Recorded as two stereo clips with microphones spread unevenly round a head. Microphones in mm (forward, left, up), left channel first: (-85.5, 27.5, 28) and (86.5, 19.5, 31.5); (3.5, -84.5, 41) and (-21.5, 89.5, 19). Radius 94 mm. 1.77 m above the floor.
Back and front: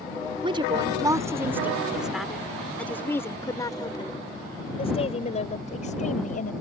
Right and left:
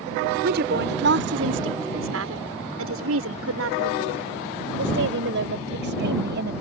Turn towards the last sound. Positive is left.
turn(degrees=130)